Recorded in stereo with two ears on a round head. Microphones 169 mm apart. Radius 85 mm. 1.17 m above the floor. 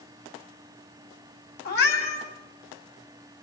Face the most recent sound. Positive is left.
turn(degrees=55)  # may be behind; listen again after turning